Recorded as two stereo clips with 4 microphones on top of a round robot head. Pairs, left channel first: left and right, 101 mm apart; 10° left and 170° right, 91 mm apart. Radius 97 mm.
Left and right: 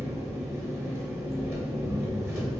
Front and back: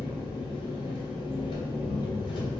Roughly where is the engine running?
Ahead right.